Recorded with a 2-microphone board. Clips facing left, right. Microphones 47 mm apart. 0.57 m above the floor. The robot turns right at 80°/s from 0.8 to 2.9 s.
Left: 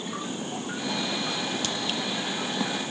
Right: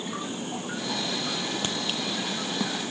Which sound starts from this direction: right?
A crack, at 1.6 s.